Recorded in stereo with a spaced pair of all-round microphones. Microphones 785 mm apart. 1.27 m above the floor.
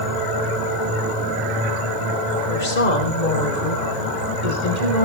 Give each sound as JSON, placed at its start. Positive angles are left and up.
{"t": 2.5, "sound": "a woman speaking", "side_deg": 85, "distance_m": 5.0}